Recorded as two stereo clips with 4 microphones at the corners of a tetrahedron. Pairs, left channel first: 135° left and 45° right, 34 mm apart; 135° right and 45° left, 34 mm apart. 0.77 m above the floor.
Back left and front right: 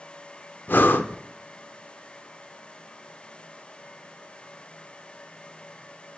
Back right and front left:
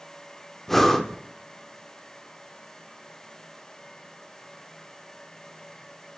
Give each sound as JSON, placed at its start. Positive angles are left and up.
{"t": 0.7, "sound": "breathing", "azimuth_deg": 140, "distance_m": 0.6}